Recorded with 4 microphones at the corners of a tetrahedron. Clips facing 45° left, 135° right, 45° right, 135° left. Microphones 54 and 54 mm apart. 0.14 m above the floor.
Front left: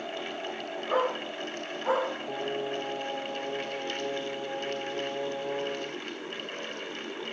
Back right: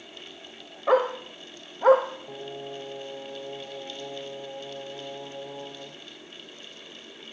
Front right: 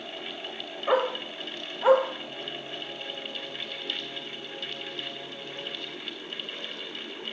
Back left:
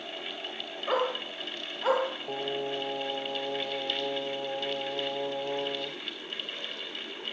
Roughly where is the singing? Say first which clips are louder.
Front left 6 dB, back left 6 dB; behind left.